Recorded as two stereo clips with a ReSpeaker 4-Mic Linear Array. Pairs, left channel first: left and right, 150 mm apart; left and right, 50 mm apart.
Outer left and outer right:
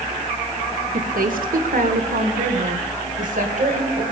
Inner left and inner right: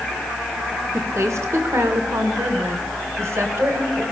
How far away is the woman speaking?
About 1.9 m.